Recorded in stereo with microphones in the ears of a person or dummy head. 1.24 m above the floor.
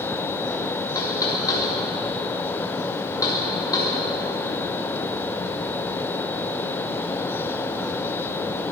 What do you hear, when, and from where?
0.9 s knocking: 20° left (ahead or behind), 2 m